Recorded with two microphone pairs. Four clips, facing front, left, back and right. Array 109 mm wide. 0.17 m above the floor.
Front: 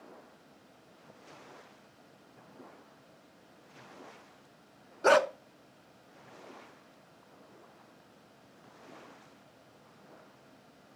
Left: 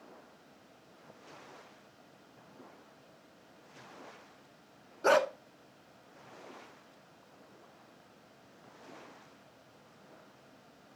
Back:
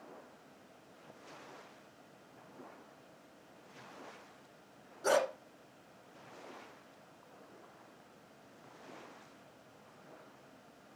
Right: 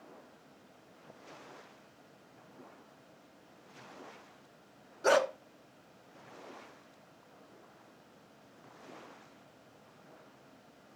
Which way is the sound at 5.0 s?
5° left.